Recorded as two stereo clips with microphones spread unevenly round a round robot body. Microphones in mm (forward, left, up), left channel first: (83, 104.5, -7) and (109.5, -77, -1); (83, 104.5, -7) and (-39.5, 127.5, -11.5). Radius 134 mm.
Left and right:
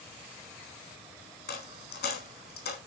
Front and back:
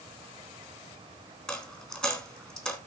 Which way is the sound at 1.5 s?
70° left.